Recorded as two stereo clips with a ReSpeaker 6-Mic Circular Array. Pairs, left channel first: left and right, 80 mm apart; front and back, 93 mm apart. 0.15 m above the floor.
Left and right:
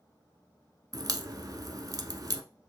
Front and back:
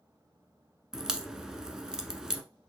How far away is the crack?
About 0.7 m.